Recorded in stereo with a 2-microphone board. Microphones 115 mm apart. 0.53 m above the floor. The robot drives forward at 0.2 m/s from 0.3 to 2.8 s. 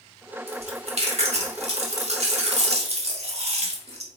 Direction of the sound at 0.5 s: 60° right (ahead or behind).